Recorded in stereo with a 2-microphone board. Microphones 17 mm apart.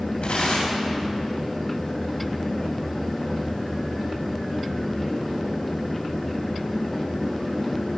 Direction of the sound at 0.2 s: 80° left.